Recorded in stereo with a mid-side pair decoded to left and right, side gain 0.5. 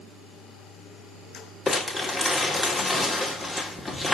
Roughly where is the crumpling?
Ahead left.